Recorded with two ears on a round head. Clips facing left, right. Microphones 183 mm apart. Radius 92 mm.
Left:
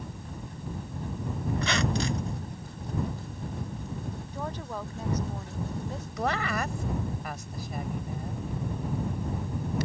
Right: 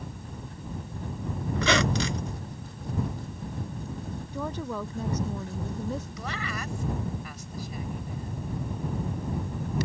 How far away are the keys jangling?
I don't hear keys jangling.